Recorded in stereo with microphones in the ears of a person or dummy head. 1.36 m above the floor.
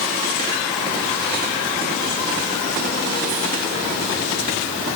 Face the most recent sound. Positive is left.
No sound to turn to.